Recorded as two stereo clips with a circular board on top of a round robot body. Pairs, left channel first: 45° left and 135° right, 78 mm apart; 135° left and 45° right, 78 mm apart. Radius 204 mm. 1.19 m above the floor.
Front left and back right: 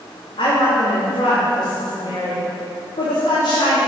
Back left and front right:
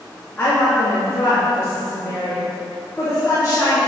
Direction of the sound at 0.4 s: 60° left.